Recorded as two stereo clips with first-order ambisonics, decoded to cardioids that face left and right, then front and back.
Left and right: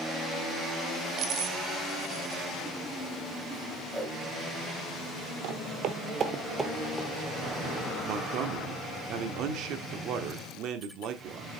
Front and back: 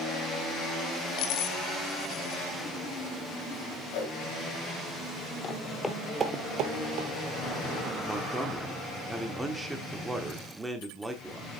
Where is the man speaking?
100° right, 1.2 m.